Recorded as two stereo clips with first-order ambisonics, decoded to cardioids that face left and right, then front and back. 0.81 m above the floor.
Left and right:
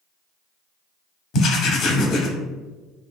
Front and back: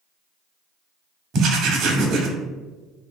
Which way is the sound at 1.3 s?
135° left.